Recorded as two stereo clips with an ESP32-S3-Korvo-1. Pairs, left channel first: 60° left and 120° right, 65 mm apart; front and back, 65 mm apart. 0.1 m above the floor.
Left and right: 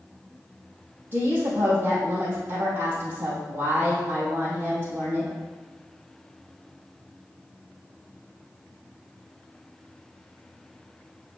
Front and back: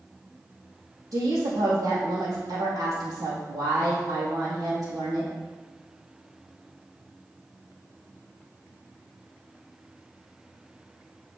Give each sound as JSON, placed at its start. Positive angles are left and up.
{"t": 1.1, "sound": "a woman speaking", "azimuth_deg": 180, "distance_m": 2.5}